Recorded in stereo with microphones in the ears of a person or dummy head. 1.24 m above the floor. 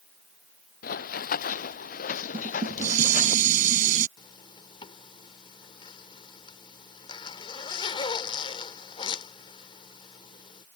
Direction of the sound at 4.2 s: 25° left (ahead or behind).